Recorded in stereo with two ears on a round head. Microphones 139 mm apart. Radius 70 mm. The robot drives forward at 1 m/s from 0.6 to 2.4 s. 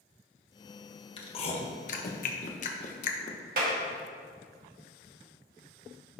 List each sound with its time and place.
1.2 s chewing: 35° left (ahead or behind), 1.4 m; by 3.4 s 50° left (ahead or behind), 1.1 m
3.6 s a clap: 60° right (ahead or behind), 1.8 m